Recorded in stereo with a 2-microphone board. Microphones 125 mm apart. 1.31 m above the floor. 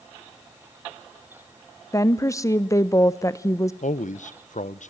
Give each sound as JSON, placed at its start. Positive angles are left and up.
{"t": 1.9, "sound": "a woman speaking", "side_deg": 25, "distance_m": 0.6}
{"t": 3.8, "sound": "a man speaking", "side_deg": 80, "distance_m": 0.8}